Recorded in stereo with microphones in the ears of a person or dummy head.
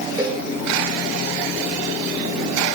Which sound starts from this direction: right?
A cowbell, at 0.2 s.